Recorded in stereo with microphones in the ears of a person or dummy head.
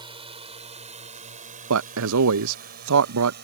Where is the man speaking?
80° right.